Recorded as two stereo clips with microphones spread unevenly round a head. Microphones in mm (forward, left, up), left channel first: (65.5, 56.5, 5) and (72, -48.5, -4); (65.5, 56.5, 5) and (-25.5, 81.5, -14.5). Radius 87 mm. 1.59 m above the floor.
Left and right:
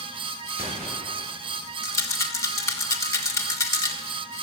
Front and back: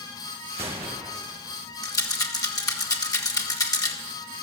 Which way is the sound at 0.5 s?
145° right.